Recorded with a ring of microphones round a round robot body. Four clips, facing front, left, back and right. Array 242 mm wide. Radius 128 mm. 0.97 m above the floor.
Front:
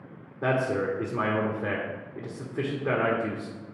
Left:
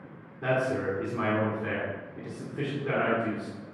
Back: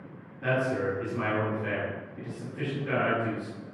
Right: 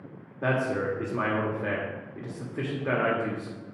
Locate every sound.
0.4 s a man speaking: 35° right, 1.6 m